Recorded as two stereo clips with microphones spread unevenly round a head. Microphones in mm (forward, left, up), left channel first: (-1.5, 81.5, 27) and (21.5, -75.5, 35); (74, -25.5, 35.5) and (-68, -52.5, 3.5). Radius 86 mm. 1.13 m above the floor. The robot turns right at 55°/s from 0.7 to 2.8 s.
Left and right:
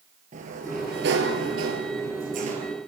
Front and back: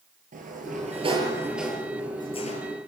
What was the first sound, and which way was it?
A sliding door, 130° right.